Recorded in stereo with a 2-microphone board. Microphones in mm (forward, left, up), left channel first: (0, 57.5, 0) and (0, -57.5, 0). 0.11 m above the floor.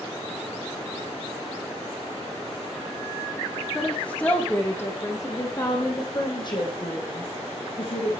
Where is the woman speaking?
10° left (ahead or behind), 5 m; by 8.2 s 55° left (ahead or behind), 6.5 m.